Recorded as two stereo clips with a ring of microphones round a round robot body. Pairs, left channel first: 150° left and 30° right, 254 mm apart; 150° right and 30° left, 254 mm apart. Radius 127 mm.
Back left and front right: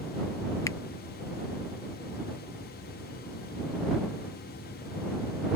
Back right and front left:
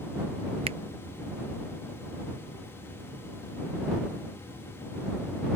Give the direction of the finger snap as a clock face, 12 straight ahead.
9 o'clock.